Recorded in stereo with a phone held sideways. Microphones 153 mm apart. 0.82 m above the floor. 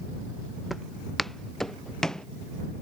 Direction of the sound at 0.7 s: Centre (ahead or behind).